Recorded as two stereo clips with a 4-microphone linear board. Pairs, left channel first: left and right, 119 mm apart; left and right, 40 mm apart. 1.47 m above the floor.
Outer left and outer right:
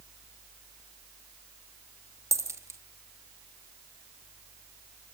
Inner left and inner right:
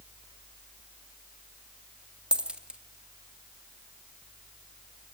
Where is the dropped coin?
25° right (ahead or behind), 1.0 m.